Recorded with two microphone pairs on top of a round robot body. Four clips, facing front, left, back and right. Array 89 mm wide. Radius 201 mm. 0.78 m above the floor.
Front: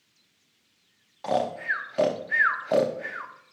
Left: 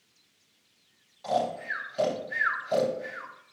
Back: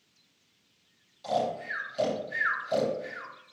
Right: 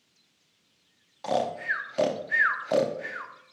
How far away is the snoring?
About 0.7 m.